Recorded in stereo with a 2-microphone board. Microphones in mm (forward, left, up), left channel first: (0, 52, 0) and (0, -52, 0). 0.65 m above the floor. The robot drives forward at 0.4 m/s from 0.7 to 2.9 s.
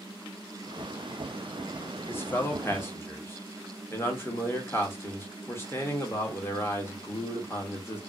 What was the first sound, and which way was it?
A man speaking, 20° left (ahead or behind).